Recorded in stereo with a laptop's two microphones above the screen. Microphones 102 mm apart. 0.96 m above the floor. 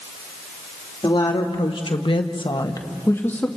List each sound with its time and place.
1.0 s a woman speaking: 50° left (ahead or behind), 2 m; by 3.5 s 15° left (ahead or behind), 1.8 m